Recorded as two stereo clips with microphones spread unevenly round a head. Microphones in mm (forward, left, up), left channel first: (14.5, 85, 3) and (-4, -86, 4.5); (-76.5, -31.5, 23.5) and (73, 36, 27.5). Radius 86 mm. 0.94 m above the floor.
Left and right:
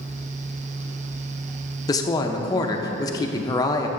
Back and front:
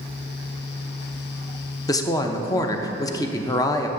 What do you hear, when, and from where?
1.9 s a woman speaking: 145° left, 0.6 m